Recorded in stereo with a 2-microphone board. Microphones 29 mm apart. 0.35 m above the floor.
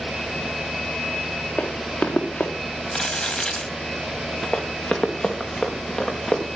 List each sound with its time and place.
1.6 s running footsteps: 70° left (ahead or behind), 3 m
2.9 s crumpling: 30° left (ahead or behind), 1.6 m
4.5 s running footsteps: 35° left (ahead or behind), 2.5 m; by 6.6 s 40° left (ahead or behind), 4.5 m